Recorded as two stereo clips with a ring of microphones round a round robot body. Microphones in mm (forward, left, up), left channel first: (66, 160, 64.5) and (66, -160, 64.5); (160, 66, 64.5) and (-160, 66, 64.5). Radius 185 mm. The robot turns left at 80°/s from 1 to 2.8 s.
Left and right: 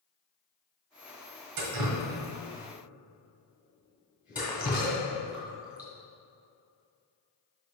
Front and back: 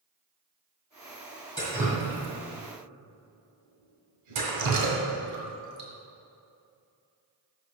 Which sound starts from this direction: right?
Dripping, at 1.6 s.